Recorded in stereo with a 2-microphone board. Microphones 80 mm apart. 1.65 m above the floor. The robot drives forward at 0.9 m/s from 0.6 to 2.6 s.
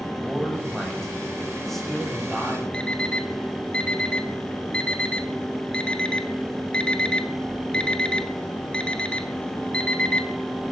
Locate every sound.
0.1 s a man speaking: 5° left (ahead or behind), 7.5 m
2.7 s an alarm clock: 10° left (ahead or behind), 1.7 m